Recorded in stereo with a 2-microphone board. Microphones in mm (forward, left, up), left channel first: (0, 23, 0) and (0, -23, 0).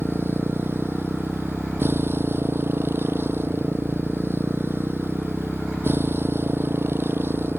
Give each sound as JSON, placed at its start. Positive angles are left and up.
{"t": 0.0, "sound": "a motorcycle", "side_deg": -60}